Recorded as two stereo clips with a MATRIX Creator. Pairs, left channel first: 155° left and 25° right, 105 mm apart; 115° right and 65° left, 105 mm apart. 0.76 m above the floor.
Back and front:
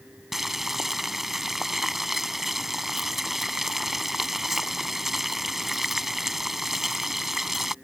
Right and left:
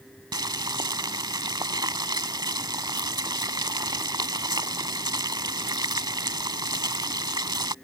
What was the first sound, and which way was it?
Boiling, 65° left.